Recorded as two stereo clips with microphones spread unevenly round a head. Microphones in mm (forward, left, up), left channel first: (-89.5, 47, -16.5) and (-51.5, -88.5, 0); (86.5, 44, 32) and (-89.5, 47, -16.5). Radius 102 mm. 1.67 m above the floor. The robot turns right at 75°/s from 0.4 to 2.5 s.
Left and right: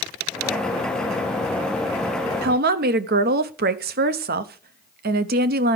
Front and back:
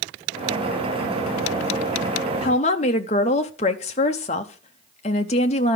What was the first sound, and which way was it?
A woman speaking, 65° right.